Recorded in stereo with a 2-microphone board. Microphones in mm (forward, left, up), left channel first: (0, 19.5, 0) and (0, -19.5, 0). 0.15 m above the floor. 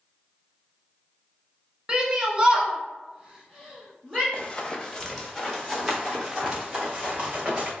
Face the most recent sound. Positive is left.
turn(degrees=-30)  # may be behind; listen again after turning